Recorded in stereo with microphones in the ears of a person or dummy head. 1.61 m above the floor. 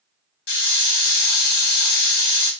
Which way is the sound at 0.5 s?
60° left (ahead or behind).